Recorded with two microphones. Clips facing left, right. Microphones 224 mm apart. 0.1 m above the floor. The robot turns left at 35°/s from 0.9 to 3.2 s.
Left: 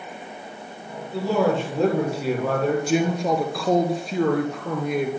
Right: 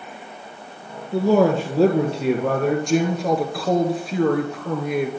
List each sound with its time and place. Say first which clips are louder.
1.1 s a man speaking: right 5 dB; 110° right, 2 m; by 2.8 s 170° right, 2 m
2.9 s a woman speaking: right 2 dB; 5° left (ahead or behind), 1.2 m; by 5.1 s centre (ahead or behind), 1.2 m